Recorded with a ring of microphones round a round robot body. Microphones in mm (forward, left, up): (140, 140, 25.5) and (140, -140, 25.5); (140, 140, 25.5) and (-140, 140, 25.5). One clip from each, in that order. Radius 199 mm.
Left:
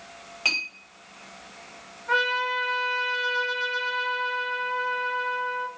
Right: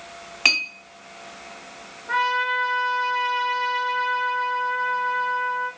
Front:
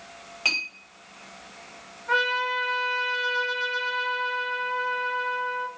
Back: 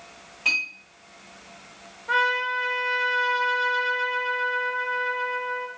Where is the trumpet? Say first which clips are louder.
Right 2 dB, back 1 dB; 90° left, 0.8 m.